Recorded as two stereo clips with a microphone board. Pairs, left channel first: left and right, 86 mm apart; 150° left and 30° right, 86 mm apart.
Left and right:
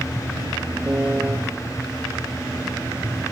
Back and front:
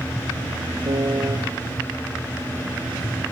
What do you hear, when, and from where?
0.8 s a piano: 20° right, 3 m